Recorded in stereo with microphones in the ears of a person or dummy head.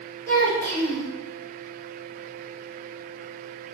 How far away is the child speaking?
About 1.4 m.